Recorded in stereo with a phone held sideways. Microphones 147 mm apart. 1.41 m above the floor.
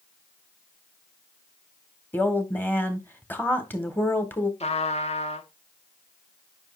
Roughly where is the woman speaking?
Centre.